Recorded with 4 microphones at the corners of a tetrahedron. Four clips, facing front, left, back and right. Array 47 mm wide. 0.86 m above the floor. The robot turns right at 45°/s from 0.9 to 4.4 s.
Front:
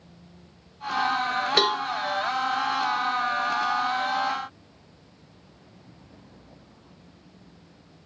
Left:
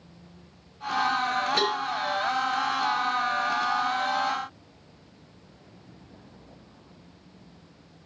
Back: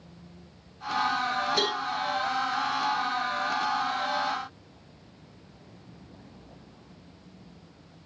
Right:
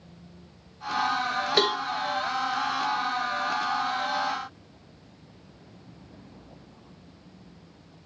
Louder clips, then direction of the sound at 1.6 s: Right 6 dB, front 5 dB; 40° right.